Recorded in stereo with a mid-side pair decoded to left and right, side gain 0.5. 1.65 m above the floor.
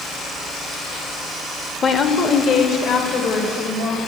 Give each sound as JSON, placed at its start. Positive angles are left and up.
{"t": 1.8, "sound": "a woman speaking", "azimuth_deg": 40, "distance_m": 0.7}